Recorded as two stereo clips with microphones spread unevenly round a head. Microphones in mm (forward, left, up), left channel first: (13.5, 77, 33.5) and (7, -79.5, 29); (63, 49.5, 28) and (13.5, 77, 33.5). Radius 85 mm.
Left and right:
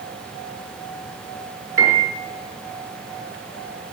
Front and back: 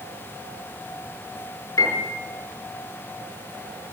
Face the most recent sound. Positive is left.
turn(degrees=-15)